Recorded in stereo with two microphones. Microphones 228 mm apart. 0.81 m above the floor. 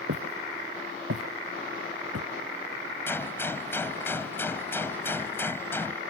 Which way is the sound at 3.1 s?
10° left (ahead or behind).